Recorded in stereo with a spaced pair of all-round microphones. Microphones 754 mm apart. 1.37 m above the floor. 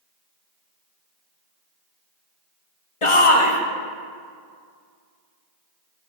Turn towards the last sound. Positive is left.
turn(degrees=45)  # may be behind; listen again after turning